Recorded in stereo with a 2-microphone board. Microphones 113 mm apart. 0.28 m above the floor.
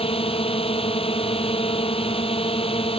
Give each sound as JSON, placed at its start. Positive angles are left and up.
{"t": 0.0, "sound": "a drone", "side_deg": 55}